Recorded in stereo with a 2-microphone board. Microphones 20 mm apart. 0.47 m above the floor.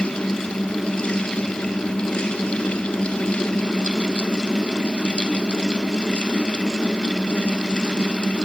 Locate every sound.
Only background noise.